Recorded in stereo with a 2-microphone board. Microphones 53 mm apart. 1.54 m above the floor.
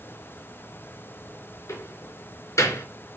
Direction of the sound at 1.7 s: 70° left (ahead or behind).